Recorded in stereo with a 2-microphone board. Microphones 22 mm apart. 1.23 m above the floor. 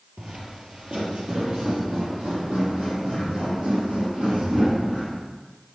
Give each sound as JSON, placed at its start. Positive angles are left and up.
{"t": 0.2, "sound": "footsteps", "side_deg": -45, "distance_m": 1.6}